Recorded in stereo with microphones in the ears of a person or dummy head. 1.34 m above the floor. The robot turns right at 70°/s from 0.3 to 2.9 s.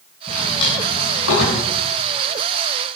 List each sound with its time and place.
0.3 s a drawer: 10° left (ahead or behind), 9 m; by 1.6 s 75° left (ahead or behind), 9 m